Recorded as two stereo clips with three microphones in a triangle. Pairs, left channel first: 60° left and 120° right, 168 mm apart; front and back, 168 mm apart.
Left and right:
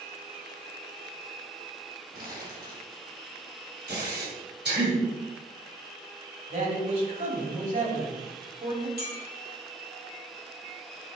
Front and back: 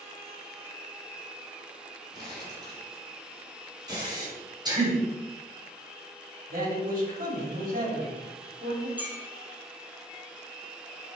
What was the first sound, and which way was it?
Crumpling, 115° right.